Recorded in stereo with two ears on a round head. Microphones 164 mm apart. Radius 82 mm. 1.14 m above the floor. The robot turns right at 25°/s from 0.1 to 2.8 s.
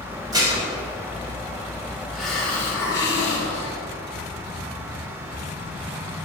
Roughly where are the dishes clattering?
Right.